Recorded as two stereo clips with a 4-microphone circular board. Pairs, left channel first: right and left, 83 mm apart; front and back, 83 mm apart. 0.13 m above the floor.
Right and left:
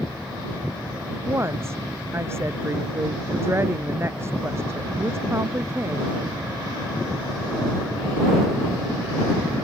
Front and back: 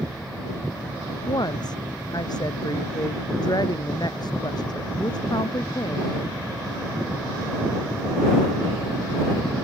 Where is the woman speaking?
30° left.